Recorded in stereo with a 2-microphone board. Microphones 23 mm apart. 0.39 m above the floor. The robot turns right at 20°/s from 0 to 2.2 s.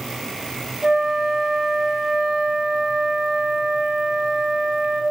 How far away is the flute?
About 0.5 m.